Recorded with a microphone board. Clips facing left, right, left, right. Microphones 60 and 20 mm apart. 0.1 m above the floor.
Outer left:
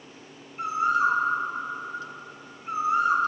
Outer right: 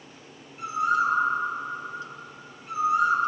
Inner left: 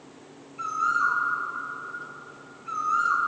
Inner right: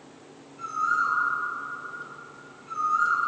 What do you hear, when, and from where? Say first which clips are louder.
0.6 s a bird: outer left 1 dB, inner left 1 dB; 35° left (ahead or behind), 0.6 m